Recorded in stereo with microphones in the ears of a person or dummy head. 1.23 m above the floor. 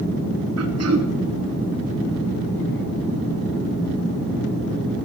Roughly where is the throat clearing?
Right.